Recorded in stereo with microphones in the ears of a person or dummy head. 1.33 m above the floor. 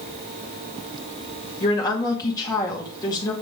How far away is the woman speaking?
About 2 m.